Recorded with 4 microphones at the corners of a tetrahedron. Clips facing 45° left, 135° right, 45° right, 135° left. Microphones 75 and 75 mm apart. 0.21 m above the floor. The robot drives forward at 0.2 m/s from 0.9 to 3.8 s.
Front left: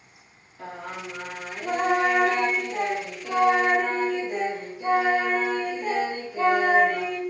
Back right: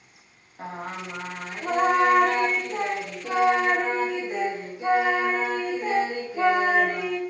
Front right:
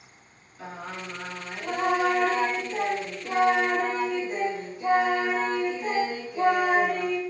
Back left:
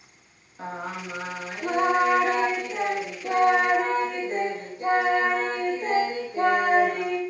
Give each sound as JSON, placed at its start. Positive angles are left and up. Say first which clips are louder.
{"t": 0.6, "sound": "singing", "louder": "back right 2 dB, back left 4 dB", "azimuth_deg": 180, "distance_m": 0.5}